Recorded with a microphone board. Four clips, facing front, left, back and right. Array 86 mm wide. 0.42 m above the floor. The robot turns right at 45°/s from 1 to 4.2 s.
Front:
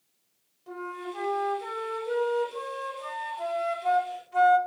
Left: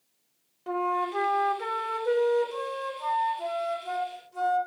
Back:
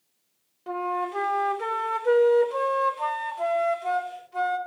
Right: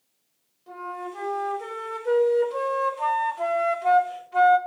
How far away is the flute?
About 0.5 m.